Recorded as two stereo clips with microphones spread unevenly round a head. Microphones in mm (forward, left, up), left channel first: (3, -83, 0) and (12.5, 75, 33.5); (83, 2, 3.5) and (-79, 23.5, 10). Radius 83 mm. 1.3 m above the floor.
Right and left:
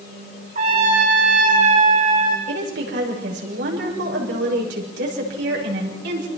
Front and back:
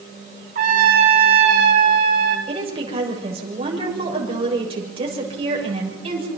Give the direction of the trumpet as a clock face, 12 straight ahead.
8 o'clock.